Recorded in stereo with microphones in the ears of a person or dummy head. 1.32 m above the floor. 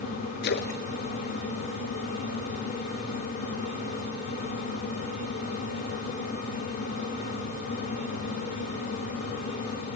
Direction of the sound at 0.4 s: 50° left (ahead or behind).